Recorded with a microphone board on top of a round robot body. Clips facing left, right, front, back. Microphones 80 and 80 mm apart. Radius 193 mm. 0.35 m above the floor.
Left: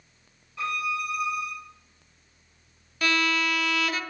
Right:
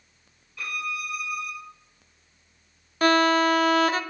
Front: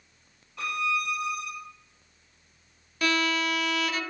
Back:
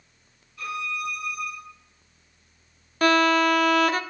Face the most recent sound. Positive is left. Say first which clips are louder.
# right 7 dB, back 8 dB
turn(degrees=-140)